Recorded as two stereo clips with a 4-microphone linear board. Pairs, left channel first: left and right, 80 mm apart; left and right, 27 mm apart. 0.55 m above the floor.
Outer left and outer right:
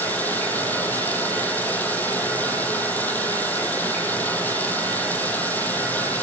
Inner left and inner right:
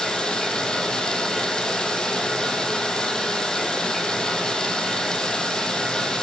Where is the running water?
20° left (ahead or behind), 3.5 m.